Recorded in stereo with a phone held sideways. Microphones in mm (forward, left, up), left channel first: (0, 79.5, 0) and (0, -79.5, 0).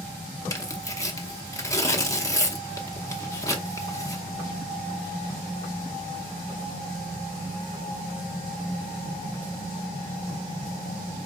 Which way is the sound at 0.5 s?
20° left (ahead or behind).